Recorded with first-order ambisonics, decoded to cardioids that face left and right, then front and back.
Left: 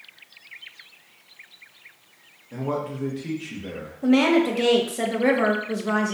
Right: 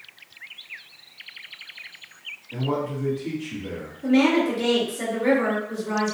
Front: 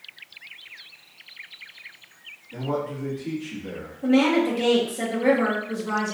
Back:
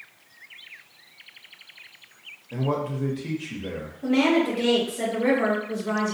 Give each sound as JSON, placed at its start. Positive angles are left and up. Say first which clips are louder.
{"t": 2.5, "sound": "a man speaking", "louder": "right 1 dB, back 1 dB", "azimuth_deg": 155, "distance_m": 0.9}
{"t": 4.0, "sound": "a woman speaking", "louder": "left 1 dB, front 1 dB", "azimuth_deg": 85, "distance_m": 0.8}